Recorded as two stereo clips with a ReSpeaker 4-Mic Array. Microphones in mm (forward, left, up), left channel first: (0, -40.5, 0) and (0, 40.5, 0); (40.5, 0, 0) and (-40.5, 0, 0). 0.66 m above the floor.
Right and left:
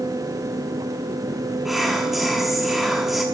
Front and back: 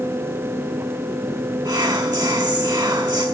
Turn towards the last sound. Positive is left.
turn(degrees=175)